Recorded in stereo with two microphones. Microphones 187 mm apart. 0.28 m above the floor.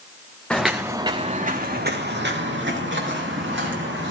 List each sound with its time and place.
0.5 s footsteps: 5° left (ahead or behind), 1.4 m; by 4.1 s 85° right, 4 m